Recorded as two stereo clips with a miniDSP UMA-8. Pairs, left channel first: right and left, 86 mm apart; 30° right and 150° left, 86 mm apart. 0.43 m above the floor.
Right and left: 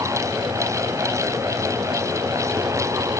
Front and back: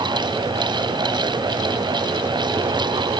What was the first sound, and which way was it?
Only background noise.